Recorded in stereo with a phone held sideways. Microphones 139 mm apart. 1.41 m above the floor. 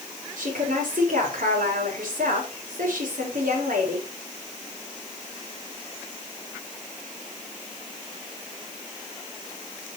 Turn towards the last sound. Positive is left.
turn(degrees=-80)